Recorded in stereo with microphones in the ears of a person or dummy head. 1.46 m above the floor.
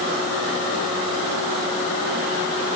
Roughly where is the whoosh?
No whoosh in this recording.